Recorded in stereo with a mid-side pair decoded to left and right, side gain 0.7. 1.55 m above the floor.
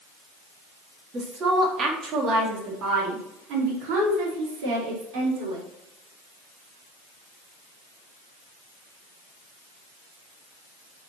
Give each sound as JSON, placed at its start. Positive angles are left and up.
{"t": 1.1, "sound": "a woman speaking", "azimuth_deg": -30, "distance_m": 3.5}